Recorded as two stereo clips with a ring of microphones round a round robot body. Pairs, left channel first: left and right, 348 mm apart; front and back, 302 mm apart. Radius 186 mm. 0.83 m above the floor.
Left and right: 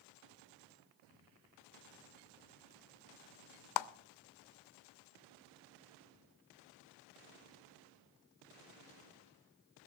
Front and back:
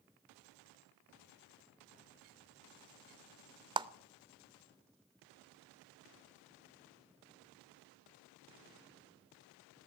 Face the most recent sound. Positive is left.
turn(degrees=105)